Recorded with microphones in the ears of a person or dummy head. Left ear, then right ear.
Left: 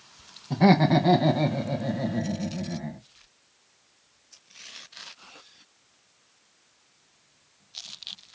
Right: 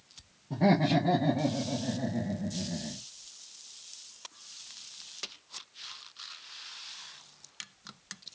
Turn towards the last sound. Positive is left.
turn(degrees=45)  # may be behind; listen again after turning